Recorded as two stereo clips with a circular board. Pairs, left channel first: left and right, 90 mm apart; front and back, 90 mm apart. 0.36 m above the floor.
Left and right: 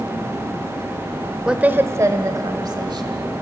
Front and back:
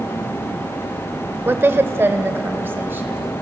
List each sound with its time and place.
1.4 s a woman speaking: 160° right, 0.8 m; by 3.3 s 115° right, 2 m